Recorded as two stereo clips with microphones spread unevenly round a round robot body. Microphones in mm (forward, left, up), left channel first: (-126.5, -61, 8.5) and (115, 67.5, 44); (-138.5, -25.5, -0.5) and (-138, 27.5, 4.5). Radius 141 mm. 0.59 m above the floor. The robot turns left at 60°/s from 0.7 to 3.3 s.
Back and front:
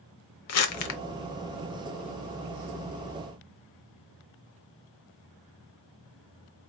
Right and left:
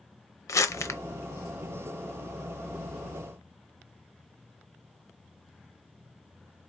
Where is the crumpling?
115° right, 0.8 m; by 1.0 s 130° right, 0.8 m.